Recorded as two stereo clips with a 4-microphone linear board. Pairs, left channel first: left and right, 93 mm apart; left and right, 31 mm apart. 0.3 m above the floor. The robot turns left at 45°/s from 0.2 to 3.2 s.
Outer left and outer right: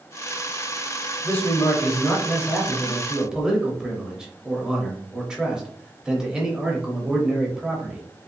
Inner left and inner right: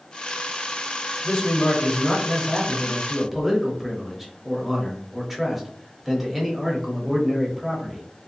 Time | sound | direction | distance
1.2 | a man speaking | 20° left (ahead or behind) | 0.9 m